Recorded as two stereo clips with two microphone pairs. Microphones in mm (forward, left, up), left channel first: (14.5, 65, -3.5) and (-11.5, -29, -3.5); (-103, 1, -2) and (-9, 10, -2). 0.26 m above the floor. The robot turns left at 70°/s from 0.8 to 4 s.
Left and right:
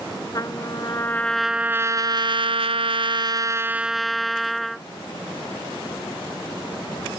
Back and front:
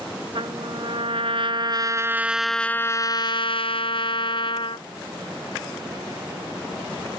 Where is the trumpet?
30° left; by 4.8 s 165° left.